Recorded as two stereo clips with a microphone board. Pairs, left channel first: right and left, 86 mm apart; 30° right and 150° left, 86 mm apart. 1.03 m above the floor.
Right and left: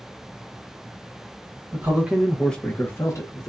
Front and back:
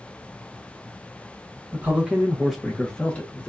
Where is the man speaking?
100° left, 0.7 m; by 3.5 s 95° right, 0.9 m.